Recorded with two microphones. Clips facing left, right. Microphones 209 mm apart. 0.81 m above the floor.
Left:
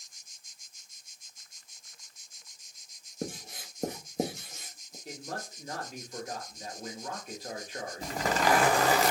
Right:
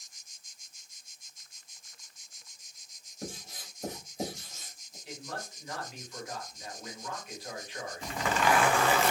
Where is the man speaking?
45° left (ahead or behind), 1.2 m.